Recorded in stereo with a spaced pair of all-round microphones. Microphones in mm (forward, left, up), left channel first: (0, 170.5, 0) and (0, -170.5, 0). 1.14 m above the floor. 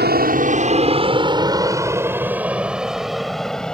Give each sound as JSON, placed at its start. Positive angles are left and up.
{"t": 0.0, "sound": "an aircraft", "side_deg": -30}